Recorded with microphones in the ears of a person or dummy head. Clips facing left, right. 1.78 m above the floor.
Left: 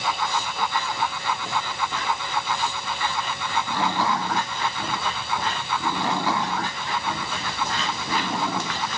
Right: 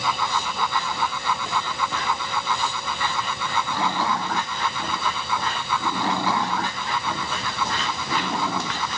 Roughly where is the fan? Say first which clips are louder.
Right 1 dB; right.